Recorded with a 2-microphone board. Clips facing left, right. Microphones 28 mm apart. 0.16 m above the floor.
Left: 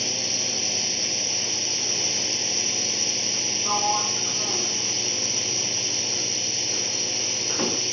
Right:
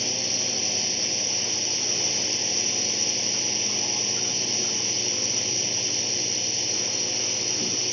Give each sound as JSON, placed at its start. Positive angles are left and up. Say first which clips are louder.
{"t": 0.0, "sound": "a drone", "louder": "left 1 dB", "side_deg": 10}
{"t": 3.6, "sound": "a sliding door", "louder": "left 4 dB", "side_deg": 65}